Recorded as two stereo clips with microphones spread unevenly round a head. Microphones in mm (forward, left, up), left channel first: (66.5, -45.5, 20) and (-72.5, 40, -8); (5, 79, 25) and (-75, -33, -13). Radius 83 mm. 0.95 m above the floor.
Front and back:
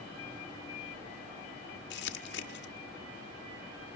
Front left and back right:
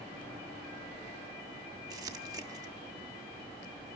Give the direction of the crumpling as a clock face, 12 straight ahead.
2 o'clock.